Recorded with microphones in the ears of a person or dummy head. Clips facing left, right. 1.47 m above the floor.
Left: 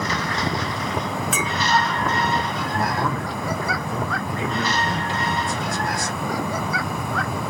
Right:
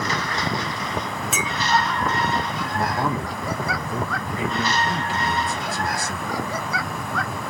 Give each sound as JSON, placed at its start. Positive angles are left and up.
{"t": 1.3, "sound": "a clink", "side_deg": -25, "distance_m": 0.6}
{"t": 2.7, "sound": "a man speaking", "side_deg": -5, "distance_m": 0.7}